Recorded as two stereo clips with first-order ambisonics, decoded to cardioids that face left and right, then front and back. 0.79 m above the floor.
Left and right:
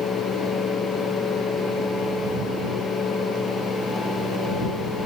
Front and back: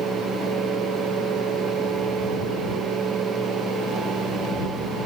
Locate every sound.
Only background noise.